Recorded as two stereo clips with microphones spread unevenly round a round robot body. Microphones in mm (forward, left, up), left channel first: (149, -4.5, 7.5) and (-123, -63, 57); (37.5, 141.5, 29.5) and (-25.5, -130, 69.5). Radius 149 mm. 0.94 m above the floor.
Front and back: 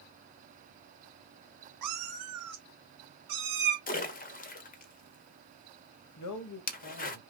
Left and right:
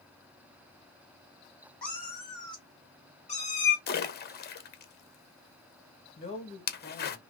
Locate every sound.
1.8 s a cat meowing: 165° left, 2 m; by 3.8 s 140° left, 2.5 m
3.9 s a splash: 50° left, 0.9 m
6.2 s a man speaking: 10° left, 1.3 m